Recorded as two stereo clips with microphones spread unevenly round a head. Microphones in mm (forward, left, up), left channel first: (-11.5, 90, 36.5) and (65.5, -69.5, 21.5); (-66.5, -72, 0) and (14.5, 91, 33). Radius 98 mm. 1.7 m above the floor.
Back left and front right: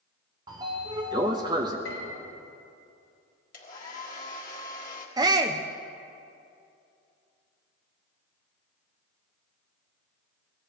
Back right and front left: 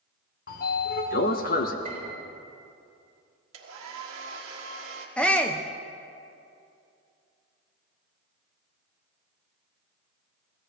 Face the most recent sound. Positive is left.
turn(degrees=-15)